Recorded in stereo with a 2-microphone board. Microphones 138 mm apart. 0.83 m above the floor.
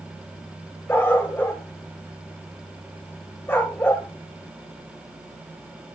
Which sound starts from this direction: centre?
A dog barking, at 0.9 s.